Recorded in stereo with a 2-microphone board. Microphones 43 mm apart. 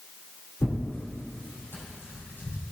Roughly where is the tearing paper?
Left.